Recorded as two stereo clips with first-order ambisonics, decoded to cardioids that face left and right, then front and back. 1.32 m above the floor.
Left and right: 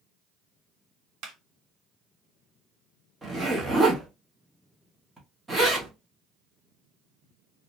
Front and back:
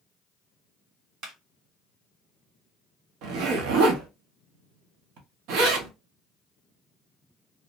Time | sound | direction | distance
1.2 | a clap | 130° right | 1.0 m
3.2 | a zipper | 170° right | 0.8 m